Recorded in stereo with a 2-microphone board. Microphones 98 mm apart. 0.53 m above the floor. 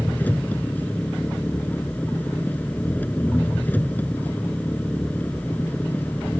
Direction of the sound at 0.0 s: 15° left (ahead or behind).